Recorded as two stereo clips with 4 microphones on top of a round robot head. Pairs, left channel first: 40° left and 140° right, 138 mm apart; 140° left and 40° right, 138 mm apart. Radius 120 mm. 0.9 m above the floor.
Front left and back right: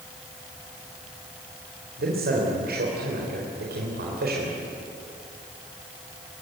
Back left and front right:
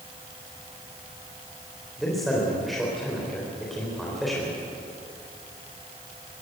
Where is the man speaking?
130° right, 4 m.